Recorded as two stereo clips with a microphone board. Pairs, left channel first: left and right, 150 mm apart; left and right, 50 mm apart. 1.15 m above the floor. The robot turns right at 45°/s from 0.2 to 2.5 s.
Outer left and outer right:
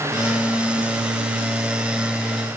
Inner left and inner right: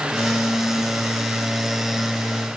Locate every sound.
Only background noise.